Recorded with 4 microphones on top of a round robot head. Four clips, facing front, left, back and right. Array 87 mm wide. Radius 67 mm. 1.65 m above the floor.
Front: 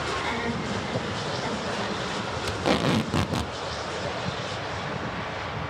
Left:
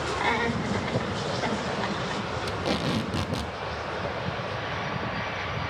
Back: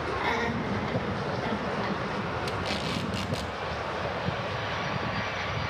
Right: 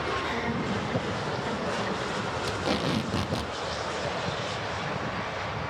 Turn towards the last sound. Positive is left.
turn(degrees=-5)